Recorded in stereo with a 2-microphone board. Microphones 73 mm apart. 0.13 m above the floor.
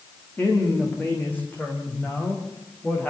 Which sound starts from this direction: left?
A woman speaking, at 0.4 s.